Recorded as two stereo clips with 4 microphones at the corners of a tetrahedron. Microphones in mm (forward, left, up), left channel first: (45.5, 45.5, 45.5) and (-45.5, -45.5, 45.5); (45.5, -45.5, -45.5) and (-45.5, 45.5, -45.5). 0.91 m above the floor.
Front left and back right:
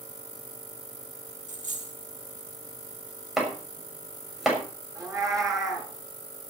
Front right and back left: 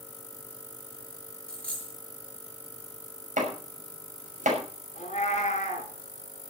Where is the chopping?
135° left, 6 m.